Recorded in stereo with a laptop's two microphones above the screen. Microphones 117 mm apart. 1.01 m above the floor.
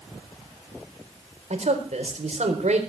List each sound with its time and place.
1.5 s a man speaking: 70° right (ahead or behind), 4 m